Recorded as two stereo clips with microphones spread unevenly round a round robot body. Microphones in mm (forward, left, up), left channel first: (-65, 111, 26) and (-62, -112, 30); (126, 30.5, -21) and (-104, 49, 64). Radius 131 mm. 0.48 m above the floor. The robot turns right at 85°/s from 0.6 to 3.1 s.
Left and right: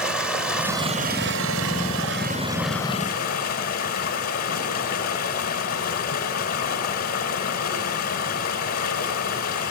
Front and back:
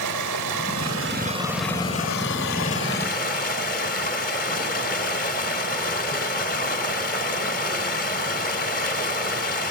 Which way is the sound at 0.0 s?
175° right.